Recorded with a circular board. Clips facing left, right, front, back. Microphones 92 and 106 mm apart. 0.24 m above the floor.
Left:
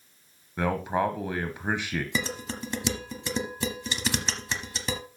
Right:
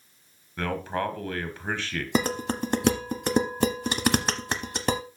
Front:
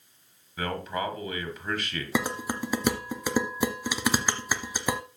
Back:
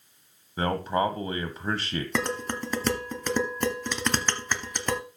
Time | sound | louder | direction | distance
0.6 | a man speaking | left 3 dB, back 5 dB | 155° left | 1.1 m
2.1 | dishes clattering | right 6 dB, front 2 dB | 80° right | 0.9 m